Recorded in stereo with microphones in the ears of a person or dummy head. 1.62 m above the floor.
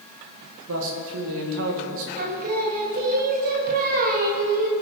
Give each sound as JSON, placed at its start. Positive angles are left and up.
{"t": 0.7, "sound": "a man speaking", "side_deg": -75, "distance_m": 2.0}
{"t": 2.2, "sound": "singing", "side_deg": -50, "distance_m": 1.5}